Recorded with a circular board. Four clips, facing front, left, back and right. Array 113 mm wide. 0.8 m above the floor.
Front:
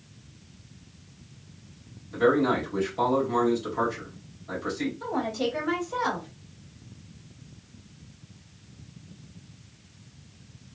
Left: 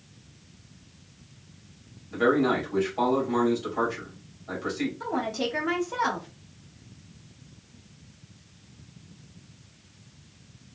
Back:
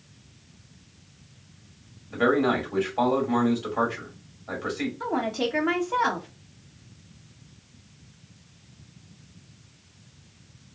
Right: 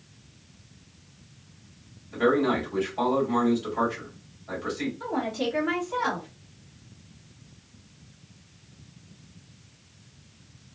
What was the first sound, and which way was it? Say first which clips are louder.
A man speaking: even, even; 170° left.